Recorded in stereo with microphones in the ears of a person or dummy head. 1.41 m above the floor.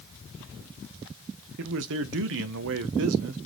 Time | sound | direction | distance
1.6 | a man speaking | 65° right (ahead or behind) | 0.8 m